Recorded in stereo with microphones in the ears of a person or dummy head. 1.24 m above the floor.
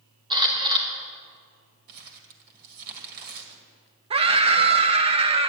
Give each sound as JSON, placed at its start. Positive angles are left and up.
{"t": 0.3, "sound": "a camera shutter", "side_deg": -25, "distance_m": 1.5}
{"t": 1.9, "sound": "crumpling", "side_deg": -50, "distance_m": 1.8}
{"t": 4.1, "sound": "a scream", "side_deg": -35, "distance_m": 0.7}